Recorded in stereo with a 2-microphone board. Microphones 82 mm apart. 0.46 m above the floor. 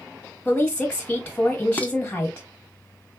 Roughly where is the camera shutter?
No camera shutter in this recording.